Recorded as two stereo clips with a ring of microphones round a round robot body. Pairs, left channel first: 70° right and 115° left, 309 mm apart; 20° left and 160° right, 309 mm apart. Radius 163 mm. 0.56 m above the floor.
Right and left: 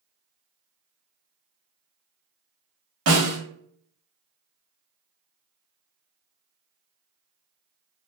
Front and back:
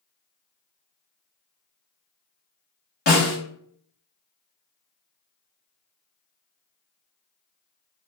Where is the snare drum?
80° left, 1.5 m.